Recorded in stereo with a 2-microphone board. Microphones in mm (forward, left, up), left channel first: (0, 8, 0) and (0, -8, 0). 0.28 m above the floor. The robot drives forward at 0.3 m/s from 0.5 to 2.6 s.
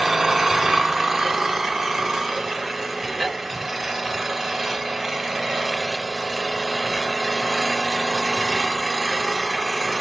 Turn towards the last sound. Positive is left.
turn(degrees=-20)  # may be behind; listen again after turning